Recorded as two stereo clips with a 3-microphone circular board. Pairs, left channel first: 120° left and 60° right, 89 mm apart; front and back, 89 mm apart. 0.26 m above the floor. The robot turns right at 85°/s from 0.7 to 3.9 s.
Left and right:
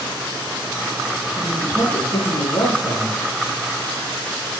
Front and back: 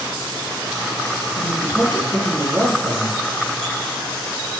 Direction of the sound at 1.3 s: 25° left.